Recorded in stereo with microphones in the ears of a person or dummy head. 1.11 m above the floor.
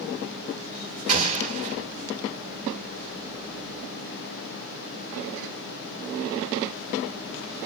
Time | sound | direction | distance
1.1 | an explosion | 40° right (ahead or behind) | 1.6 m